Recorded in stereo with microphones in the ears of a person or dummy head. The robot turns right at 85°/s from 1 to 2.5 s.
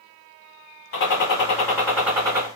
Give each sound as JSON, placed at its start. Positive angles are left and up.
{"t": 0.9, "sound": "a gunshot", "azimuth_deg": 100, "distance_m": 1.6}